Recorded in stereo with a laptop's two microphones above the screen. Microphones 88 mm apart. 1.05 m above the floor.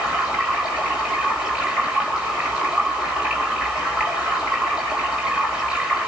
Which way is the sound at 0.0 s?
10° right (ahead or behind).